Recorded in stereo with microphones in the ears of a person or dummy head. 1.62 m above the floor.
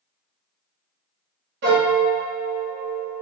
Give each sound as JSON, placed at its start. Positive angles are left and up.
{"t": 1.6, "sound": "a piano", "side_deg": -55, "distance_m": 0.9}